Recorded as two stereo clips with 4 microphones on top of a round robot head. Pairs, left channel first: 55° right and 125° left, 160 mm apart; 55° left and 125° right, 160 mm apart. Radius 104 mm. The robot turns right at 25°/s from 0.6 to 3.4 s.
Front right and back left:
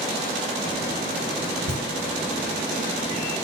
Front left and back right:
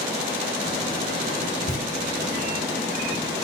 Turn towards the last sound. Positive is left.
turn(degrees=10)